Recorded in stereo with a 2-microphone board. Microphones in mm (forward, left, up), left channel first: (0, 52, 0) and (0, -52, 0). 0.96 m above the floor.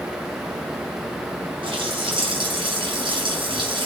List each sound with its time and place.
1.6 s a running tap: 50° right (ahead or behind), 5.5 m